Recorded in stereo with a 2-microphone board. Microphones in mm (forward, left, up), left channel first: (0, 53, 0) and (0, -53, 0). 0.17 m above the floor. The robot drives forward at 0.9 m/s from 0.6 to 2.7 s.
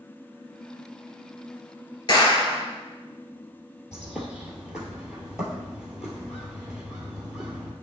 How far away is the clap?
About 3.5 m.